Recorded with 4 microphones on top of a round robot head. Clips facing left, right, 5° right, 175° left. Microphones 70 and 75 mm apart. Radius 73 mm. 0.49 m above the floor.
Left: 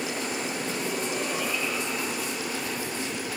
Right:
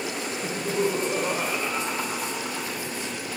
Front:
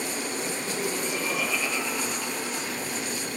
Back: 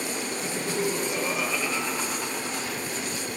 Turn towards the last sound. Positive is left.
turn(degrees=-115)